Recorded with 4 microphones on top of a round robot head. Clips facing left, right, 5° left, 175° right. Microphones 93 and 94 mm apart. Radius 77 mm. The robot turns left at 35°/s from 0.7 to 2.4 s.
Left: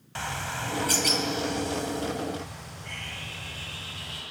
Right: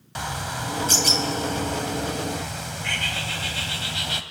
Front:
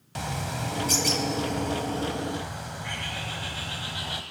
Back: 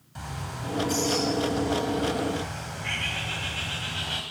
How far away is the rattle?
No rattle in this recording.